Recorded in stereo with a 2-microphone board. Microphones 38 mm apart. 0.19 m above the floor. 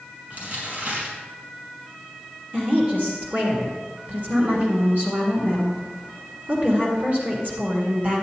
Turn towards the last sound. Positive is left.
turn(degrees=-45)  # may be behind; listen again after turning